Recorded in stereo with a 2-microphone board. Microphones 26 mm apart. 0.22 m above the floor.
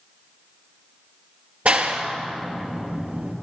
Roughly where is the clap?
Right.